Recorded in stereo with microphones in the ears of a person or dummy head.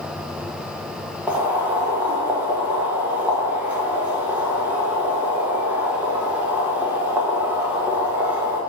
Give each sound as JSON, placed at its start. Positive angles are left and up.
{"t": 1.3, "sound": "boiling", "side_deg": -10, "distance_m": 1.1}